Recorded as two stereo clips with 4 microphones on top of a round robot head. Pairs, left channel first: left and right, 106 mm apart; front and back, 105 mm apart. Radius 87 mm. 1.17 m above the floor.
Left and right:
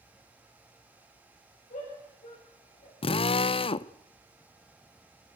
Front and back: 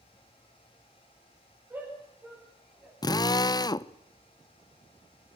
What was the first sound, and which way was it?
A shout, 110° left.